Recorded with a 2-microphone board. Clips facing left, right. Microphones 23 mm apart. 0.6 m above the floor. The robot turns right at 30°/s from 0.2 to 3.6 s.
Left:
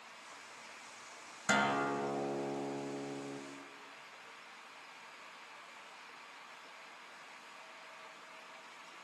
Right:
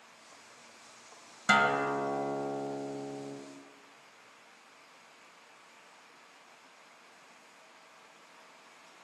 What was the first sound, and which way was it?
A guitar, 90° right.